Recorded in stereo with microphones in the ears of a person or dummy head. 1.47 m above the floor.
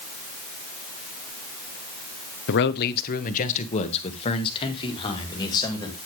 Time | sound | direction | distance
2.5 | a man speaking | 65° left (ahead or behind) | 1.0 m